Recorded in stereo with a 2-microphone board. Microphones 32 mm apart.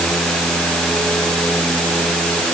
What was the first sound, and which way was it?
Only background noise.